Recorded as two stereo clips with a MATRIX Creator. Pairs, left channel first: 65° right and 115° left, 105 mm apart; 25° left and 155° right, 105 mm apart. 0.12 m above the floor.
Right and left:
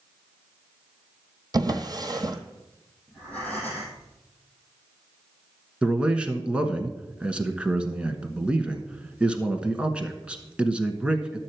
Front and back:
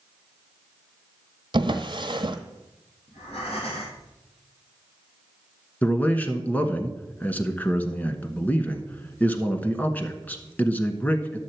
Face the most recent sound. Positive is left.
turn(degrees=55)